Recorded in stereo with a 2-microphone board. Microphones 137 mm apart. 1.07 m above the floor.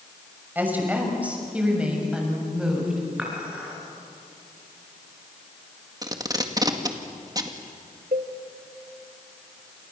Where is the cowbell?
65° right (ahead or behind), 1.5 m.